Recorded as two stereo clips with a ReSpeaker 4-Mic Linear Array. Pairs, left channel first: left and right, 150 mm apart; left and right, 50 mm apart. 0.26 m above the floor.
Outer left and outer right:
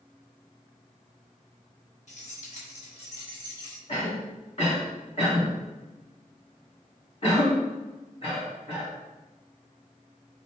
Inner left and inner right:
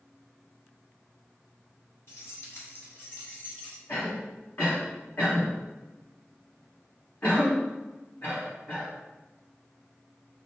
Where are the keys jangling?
60° left (ahead or behind), 1.8 m; by 3.8 s 25° left (ahead or behind), 1.0 m.